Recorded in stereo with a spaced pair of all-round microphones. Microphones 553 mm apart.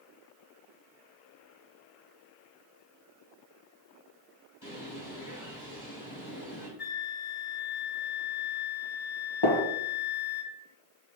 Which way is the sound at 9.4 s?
45° left (ahead or behind).